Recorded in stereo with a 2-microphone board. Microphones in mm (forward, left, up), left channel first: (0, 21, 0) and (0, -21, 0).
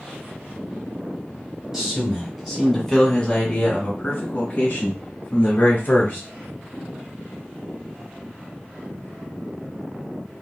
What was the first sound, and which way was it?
A man speaking, 15° right (ahead or behind).